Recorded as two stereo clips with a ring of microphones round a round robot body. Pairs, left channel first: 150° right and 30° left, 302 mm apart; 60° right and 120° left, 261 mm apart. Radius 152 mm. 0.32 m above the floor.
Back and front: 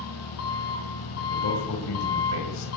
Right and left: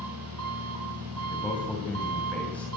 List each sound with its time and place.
0.0 s an engine running: 165° left, 3 m
1.3 s a man speaking: 145° right, 2 m